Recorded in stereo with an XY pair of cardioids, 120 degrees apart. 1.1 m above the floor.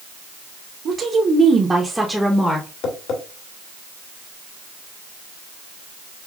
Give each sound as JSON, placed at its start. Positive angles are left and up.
{"t": 0.8, "sound": "a woman speaking", "azimuth_deg": -50, "distance_m": 1.0}
{"t": 2.8, "sound": "tapping", "azimuth_deg": 65, "distance_m": 1.3}